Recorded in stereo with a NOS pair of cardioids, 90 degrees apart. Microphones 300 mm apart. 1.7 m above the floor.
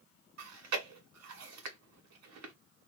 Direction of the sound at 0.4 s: 60° right.